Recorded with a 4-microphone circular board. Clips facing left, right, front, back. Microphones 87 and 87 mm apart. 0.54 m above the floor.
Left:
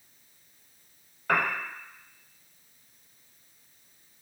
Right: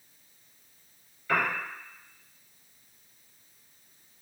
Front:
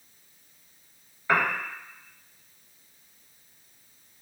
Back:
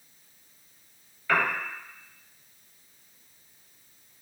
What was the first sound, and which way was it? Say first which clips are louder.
A piano: left 1 dB, front 1 dB; 65° left.